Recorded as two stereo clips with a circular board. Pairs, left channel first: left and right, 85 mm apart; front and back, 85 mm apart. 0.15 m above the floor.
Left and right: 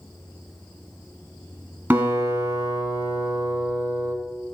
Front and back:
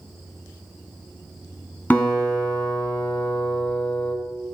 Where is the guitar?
50° right, 1.5 m.